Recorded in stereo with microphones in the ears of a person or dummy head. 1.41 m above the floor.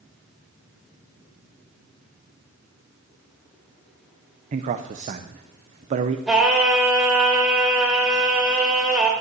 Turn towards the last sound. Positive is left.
turn(degrees=-5)  # may be behind; listen again after turning